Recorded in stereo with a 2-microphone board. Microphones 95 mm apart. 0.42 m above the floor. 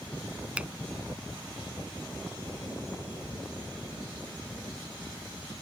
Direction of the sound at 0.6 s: 15° right (ahead or behind).